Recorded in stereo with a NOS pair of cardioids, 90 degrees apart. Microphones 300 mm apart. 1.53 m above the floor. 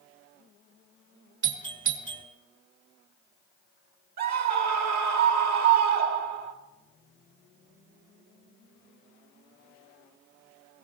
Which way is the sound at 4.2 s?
60° right.